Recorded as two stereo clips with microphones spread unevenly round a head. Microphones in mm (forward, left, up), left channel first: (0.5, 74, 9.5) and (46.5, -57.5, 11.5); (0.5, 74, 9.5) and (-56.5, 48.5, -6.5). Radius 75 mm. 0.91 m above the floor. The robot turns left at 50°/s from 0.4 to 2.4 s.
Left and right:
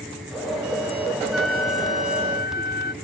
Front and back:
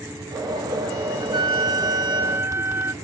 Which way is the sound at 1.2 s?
150° right.